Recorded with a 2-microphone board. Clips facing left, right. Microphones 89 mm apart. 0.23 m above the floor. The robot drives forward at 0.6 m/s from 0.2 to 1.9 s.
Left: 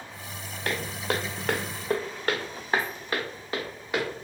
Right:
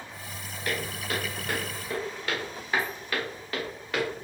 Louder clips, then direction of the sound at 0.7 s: Left 3 dB; 55° left (ahead or behind).